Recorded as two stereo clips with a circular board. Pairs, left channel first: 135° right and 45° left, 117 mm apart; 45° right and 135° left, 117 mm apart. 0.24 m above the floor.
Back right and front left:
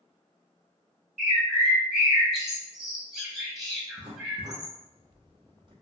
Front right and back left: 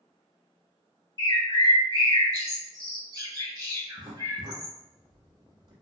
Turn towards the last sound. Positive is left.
turn(degrees=85)